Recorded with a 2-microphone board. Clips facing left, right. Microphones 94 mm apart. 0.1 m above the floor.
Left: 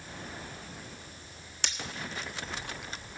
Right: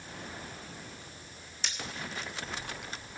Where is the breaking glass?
70° left (ahead or behind), 1.3 m.